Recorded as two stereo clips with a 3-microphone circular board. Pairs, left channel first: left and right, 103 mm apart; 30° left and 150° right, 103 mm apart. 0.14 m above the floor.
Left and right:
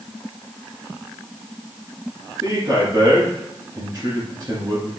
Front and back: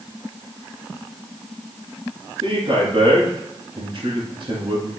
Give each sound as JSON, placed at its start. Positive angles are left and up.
{"t": 2.4, "sound": "a man speaking", "azimuth_deg": -145, "distance_m": 2.0}